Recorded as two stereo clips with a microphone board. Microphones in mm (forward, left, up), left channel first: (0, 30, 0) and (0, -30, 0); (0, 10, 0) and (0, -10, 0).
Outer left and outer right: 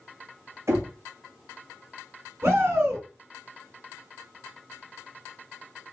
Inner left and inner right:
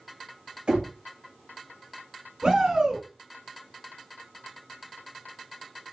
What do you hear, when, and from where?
0.7 s knocking: 55° right (ahead or behind), 1.6 m
2.4 s a shout: 50° right (ahead or behind), 3.5 m